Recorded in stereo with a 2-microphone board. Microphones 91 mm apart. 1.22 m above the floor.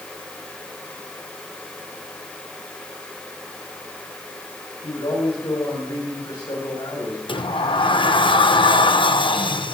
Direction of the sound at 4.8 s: 70° left (ahead or behind).